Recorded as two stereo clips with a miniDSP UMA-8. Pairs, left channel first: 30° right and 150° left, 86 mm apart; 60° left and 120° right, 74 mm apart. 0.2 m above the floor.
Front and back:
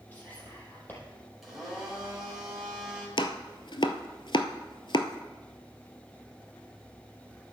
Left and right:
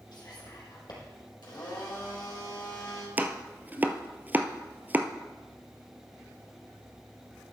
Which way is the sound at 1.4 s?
60° left.